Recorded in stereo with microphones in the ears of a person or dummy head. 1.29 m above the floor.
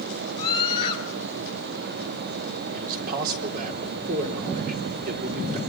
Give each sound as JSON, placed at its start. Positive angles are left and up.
{"t": 0.4, "sound": "a scream", "side_deg": 25, "distance_m": 5.5}
{"t": 2.7, "sound": "a man speaking", "side_deg": -50, "distance_m": 3.5}